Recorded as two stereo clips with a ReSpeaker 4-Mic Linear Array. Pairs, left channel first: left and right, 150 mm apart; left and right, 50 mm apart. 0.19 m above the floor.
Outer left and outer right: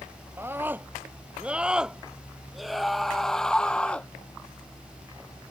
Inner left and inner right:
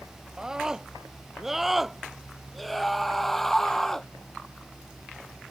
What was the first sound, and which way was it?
A scream, 15° right (ahead or behind).